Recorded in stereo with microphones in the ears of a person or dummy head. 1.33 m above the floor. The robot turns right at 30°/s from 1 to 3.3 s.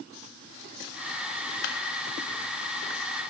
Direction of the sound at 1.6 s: 65° left (ahead or behind).